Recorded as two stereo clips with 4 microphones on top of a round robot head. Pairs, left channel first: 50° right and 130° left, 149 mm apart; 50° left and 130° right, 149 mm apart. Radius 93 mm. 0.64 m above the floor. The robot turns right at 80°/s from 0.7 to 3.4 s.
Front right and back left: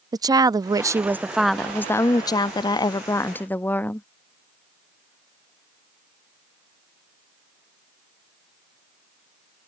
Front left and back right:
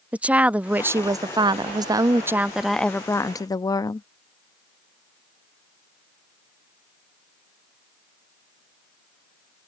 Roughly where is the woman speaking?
Behind.